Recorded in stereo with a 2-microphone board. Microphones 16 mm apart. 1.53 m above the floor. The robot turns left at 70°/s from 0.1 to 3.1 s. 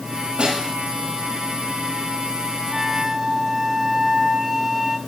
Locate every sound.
0.4 s a snare drum: 80° right, 9 m; by 0.7 s 75° right (ahead or behind), 9 m
2.7 s a flute: 15° right (ahead or behind), 1.1 m; by 5.0 s 25° right (ahead or behind), 1.1 m